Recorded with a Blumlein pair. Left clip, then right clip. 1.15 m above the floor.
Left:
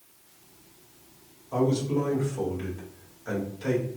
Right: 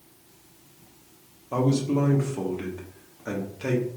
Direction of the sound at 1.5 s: 40° right.